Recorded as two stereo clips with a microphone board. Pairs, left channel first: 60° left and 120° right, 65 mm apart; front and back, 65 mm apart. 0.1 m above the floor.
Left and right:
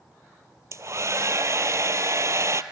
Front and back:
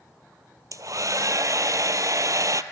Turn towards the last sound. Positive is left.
turn(degrees=-155)